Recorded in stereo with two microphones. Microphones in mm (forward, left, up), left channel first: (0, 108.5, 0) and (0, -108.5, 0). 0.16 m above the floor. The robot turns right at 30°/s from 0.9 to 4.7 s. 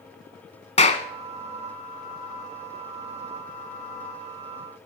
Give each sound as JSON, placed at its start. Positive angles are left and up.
{"t": 0.8, "sound": "a clap", "side_deg": 30, "distance_m": 0.9}